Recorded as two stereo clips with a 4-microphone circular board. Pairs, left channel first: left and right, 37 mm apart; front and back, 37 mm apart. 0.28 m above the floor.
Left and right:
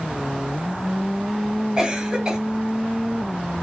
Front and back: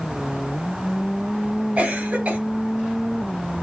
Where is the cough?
150° right, 1.7 m.